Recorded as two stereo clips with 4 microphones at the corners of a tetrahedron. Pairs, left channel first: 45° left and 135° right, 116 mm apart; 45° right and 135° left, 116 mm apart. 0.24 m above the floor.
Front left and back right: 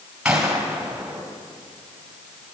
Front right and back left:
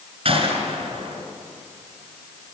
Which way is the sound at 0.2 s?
145° left.